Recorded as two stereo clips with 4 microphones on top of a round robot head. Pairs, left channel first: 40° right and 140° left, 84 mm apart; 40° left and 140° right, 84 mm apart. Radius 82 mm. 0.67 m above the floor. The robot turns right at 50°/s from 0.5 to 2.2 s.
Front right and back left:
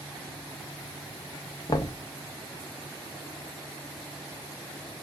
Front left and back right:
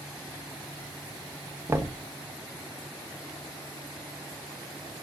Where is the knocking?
80° right, 0.6 m; by 2.0 s 70° right, 0.6 m.